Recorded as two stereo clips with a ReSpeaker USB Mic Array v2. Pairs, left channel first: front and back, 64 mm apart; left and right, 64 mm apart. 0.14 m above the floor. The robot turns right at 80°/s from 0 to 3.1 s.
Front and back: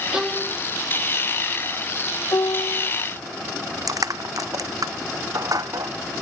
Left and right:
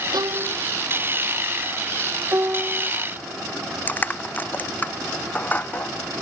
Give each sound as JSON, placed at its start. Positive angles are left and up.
{"t": 0.1, "sound": "a violin", "azimuth_deg": -105}
{"t": 2.3, "sound": "a piano", "azimuth_deg": -45}
{"t": 3.9, "sound": "crushing", "azimuth_deg": 155}